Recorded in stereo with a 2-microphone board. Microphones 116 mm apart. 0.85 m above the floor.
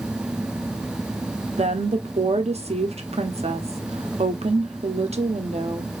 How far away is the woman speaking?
About 1.1 m.